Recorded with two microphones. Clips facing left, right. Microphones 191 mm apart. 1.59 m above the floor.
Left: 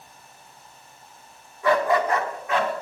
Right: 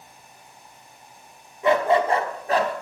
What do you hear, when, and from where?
1.6 s a dog barking: 20° right (ahead or behind), 1.2 m; by 2.7 s 40° right (ahead or behind), 1.4 m